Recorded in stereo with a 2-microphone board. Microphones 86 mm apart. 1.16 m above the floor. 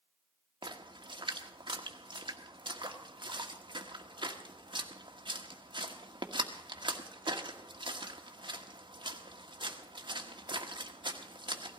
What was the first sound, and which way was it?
A splash, 65° right (ahead or behind).